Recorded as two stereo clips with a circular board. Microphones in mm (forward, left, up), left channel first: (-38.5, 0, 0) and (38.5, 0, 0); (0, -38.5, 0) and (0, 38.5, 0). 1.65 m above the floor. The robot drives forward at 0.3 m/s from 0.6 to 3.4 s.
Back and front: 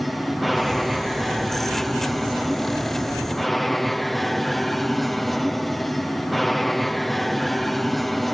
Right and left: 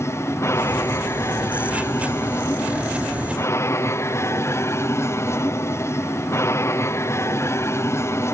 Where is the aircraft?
90° right; by 8.3 s 95° right.